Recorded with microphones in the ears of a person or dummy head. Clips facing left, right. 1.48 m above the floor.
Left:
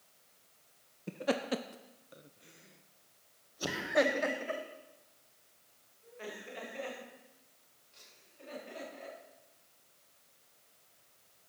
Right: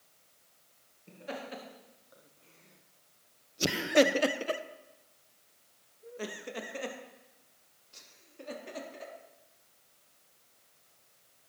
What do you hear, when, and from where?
1.1 s laughter: 70° left (ahead or behind), 1.1 m; by 9.1 s 65° right (ahead or behind), 4 m